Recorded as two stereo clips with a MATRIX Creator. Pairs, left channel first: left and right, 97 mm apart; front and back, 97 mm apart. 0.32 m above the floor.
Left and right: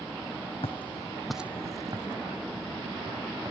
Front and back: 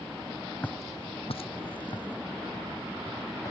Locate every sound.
0.6 s footsteps: 75° left; by 3.5 s 55° right